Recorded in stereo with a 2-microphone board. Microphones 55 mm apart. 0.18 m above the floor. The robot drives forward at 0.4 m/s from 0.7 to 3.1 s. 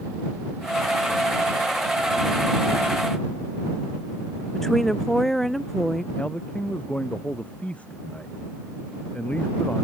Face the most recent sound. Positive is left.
turn(degrees=25)  # may be behind; listen again after turning